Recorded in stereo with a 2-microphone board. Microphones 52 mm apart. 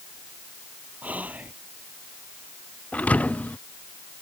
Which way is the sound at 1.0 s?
30° right (ahead or behind).